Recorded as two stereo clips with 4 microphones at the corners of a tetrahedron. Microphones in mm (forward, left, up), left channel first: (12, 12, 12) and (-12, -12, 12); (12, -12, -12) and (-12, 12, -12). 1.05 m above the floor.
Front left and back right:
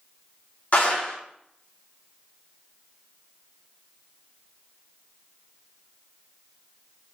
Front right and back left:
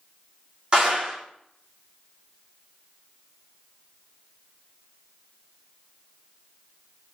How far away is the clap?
About 1.8 m.